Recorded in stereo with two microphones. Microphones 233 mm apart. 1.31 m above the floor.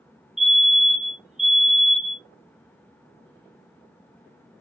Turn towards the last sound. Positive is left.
turn(degrees=-30)  # may be behind; listen again after turning